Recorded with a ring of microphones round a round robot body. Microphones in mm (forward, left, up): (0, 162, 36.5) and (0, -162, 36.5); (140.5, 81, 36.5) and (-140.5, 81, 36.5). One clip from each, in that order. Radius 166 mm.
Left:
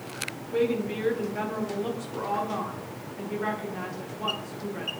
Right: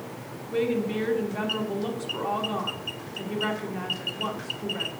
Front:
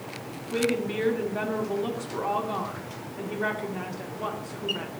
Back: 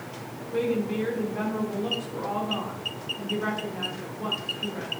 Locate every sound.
0.5 s a woman speaking: 25° right, 1.3 m